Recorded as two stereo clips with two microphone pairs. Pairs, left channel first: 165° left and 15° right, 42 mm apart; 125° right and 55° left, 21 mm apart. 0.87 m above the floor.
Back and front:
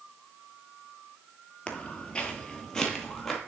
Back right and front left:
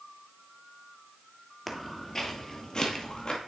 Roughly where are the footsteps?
Behind left.